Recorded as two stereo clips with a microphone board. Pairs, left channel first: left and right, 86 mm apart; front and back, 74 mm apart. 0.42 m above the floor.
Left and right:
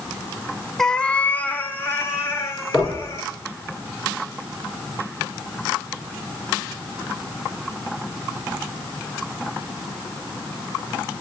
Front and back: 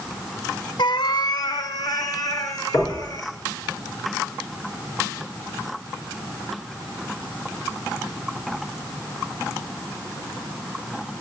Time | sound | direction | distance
0.8 | a cat meowing | 5° left | 0.5 m
2.7 | knocking | 15° left | 4 m